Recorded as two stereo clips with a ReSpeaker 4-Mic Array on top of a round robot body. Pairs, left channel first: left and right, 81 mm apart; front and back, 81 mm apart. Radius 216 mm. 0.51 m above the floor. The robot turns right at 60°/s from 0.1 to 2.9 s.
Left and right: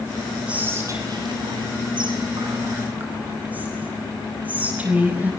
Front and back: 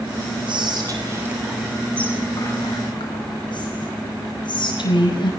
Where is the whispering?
165° right, 5.5 m; by 5.3 s 20° right, 5.5 m.